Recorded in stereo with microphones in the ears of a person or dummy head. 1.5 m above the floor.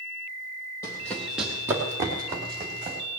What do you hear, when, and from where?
0.8 s running footsteps: 15° left (ahead or behind), 1.7 m; by 3.0 s 30° right (ahead or behind), 3.5 m